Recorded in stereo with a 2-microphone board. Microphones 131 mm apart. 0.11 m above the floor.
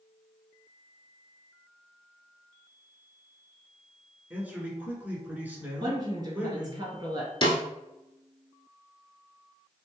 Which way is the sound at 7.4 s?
40° left (ahead or behind).